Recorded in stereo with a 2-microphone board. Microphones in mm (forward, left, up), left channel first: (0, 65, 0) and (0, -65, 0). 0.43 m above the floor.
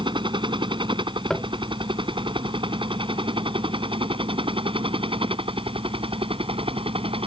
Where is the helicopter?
35° right (ahead or behind); by 7.3 s 45° right (ahead or behind).